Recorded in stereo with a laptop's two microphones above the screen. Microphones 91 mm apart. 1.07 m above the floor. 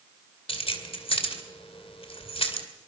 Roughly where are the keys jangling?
Left.